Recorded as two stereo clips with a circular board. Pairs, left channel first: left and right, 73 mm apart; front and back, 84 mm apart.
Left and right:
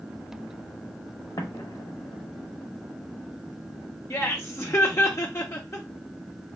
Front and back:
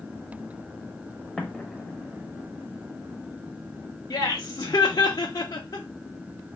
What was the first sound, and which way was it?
An explosion, 85° left.